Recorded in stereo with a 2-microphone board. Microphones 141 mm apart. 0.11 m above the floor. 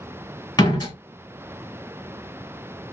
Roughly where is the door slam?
Left.